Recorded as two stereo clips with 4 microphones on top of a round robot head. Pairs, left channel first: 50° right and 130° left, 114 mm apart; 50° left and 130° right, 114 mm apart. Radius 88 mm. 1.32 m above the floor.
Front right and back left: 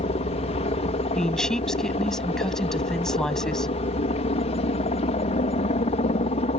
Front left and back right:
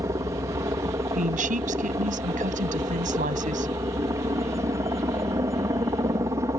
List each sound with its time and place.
0.0 s a helicopter: 70° right
1.1 s a woman speaking: 135° right